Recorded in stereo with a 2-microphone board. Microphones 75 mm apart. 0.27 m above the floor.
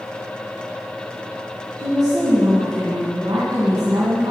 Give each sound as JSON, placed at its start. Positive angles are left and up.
{"t": 1.8, "sound": "a woman speaking", "side_deg": -60, "distance_m": 2.0}